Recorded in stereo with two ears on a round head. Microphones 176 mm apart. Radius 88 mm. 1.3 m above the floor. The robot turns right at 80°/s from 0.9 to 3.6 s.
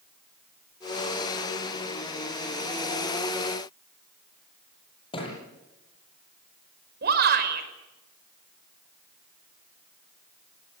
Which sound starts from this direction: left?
A thud, at 5.1 s.